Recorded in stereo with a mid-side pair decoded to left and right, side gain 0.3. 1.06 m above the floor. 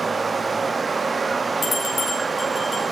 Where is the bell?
55° left, 5.5 m.